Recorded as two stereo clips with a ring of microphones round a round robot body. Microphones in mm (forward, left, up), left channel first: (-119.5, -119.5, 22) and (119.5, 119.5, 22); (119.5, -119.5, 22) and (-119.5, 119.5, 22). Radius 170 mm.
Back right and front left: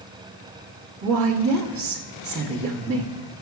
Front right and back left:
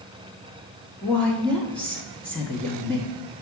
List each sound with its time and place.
1.0 s a woman speaking: 40° left, 1.1 m